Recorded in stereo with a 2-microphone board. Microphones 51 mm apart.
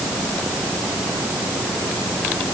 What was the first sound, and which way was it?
Only background noise.